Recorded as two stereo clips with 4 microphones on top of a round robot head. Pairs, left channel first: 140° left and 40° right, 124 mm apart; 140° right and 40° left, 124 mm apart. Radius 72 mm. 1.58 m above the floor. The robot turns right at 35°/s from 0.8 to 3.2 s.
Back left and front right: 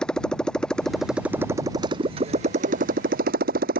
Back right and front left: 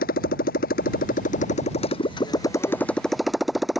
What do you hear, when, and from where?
0.0 s a motorcycle: 135° right; by 3.8 s 50° right